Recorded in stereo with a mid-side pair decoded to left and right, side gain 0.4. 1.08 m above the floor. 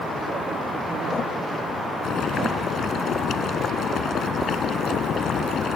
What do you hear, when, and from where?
2.0 s boiling: 65° left